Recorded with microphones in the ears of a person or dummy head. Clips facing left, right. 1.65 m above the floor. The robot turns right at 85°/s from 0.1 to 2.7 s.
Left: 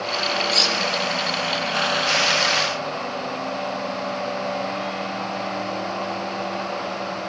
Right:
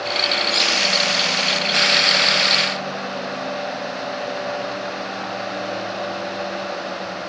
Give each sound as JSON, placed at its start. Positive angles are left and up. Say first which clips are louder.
{"t": 0.5, "sound": "cutlery clinking", "louder": "even", "side_deg": -5, "distance_m": 1.7}